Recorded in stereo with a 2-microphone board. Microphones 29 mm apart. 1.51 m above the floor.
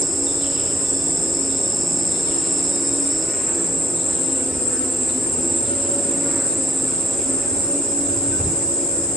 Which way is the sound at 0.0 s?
10° left (ahead or behind).